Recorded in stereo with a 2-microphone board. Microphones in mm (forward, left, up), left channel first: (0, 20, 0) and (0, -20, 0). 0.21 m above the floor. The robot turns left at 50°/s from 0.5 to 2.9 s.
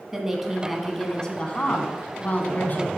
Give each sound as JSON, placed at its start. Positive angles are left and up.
{"t": 0.1, "sound": "a woman speaking", "azimuth_deg": -165, "distance_m": 1.5}